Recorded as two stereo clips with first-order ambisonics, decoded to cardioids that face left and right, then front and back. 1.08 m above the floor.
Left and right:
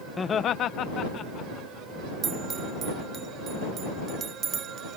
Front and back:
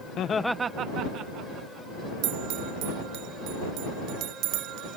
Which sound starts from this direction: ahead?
Laughter, at 0.2 s.